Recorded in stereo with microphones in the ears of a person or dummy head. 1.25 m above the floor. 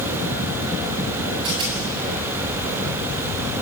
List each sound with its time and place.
1.4 s a rattle: 25° right (ahead or behind), 7.5 m